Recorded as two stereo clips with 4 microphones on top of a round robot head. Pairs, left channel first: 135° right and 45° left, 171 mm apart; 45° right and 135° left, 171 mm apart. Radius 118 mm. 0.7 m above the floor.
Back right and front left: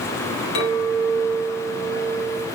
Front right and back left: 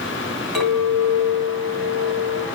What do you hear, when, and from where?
0.6 s a clink: 135° right, 3.5 m